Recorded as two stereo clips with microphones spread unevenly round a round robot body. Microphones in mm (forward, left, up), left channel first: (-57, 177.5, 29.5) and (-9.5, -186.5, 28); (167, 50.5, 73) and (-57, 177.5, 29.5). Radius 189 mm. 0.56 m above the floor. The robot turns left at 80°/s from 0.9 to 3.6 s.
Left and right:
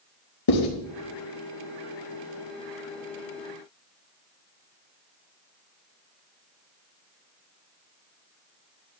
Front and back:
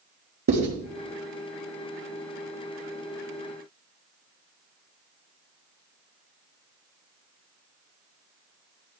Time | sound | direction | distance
0.5 | writing | 130° left | 4.5 m